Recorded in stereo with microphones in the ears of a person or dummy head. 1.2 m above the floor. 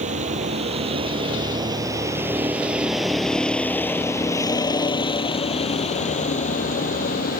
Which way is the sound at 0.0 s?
40° right (ahead or behind).